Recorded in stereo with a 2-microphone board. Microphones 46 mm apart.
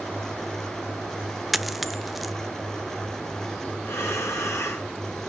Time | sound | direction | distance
1.5 | a dropped coin | centre (ahead or behind) | 0.5 m
3.9 | breathing | 75° left (ahead or behind) | 3.5 m